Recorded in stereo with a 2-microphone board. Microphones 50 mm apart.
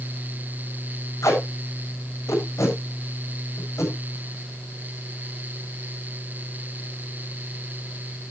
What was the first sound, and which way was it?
Tape being pulled, 80° left.